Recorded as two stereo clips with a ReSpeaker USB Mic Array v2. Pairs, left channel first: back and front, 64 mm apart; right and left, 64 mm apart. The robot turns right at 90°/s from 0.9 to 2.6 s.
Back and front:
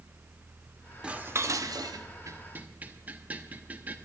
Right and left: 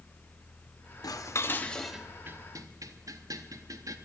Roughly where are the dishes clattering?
Right.